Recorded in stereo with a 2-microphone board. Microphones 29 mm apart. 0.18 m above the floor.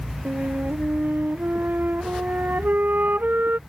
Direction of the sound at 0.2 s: 75° right (ahead or behind).